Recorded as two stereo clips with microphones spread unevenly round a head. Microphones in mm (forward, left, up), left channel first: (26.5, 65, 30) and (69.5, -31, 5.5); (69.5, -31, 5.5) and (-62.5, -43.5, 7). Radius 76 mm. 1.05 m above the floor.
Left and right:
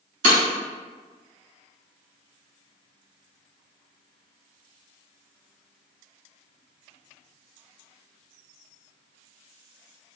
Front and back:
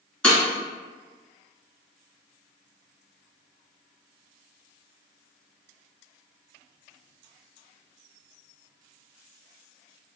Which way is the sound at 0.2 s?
80° right.